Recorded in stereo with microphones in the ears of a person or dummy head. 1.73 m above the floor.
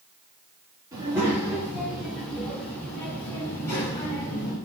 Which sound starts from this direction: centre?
A child speaking, at 0.9 s.